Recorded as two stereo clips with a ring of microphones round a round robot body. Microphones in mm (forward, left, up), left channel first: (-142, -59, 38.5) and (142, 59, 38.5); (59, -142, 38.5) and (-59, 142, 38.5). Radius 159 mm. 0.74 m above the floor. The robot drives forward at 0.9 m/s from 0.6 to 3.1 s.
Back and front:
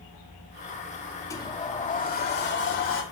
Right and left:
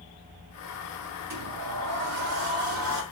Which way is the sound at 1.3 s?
125° left.